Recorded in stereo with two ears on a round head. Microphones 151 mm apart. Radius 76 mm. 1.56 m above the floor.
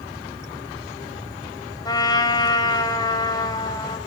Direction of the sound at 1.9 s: 25° left (ahead or behind).